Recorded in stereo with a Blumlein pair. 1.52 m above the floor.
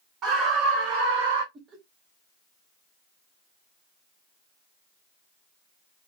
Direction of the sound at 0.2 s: 30° right.